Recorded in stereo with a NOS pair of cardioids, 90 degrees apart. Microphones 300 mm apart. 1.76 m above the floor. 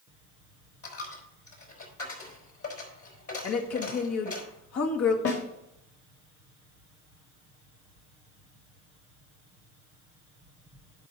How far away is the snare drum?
About 2.5 m.